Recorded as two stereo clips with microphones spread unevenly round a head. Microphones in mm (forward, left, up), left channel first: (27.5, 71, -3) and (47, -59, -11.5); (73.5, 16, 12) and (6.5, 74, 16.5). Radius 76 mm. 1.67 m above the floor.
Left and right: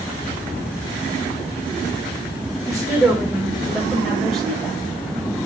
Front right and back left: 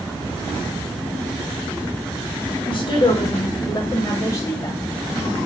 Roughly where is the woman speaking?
Ahead.